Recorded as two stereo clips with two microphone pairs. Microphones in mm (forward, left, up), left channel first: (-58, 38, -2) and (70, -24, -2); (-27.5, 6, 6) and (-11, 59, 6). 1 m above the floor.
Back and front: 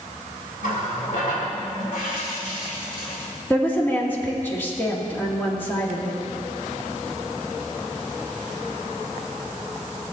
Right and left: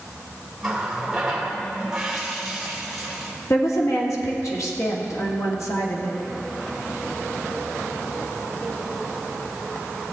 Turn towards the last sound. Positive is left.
turn(degrees=-130)